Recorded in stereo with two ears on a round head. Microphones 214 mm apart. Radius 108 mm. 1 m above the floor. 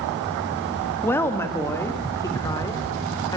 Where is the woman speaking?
10° left (ahead or behind), 1.6 m; by 3.4 s 15° left (ahead or behind), 3 m.